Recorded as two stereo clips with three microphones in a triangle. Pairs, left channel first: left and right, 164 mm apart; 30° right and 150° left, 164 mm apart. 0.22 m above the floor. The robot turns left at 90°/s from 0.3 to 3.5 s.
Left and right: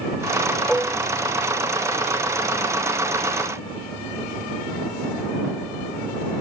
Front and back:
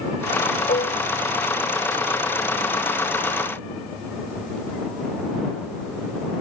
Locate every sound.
0.7 s dishes clattering: straight ahead; by 1.0 s 30° right